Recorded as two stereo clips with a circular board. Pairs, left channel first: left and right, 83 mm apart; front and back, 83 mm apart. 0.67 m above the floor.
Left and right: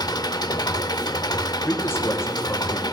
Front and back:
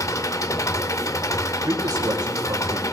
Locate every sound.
0.0 s an engine running: 50° left, 0.9 m
1.6 s a man speaking: 145° left, 3.5 m